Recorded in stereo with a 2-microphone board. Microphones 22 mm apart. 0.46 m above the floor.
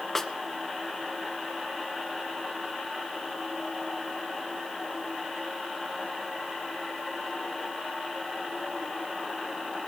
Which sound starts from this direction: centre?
A snare drum, at 0.1 s.